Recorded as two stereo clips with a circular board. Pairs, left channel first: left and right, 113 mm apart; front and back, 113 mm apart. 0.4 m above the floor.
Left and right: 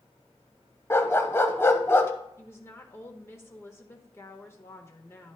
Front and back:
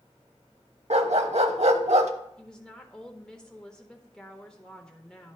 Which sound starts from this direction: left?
A woman speaking, at 2.4 s.